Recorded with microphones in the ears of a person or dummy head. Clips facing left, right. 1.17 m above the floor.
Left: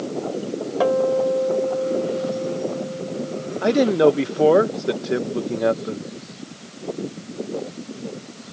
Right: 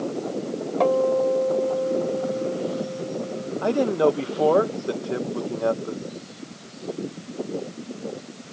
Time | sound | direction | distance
0.8 | a guitar | 10° left (ahead or behind) | ?
3.6 | a man speaking | 25° left (ahead or behind) | ?